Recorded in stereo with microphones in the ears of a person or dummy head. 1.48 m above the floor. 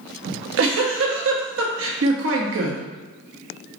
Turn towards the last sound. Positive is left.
turn(degrees=-70)  # may be behind; listen again after turning